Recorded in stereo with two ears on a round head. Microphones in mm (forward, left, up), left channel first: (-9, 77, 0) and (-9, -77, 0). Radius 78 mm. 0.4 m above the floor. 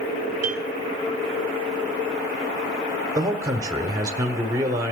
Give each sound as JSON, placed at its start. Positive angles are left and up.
{"t": 0.4, "sound": "a piano", "side_deg": -15, "distance_m": 1.5}
{"t": 3.1, "sound": "a man speaking", "side_deg": -20, "distance_m": 1.0}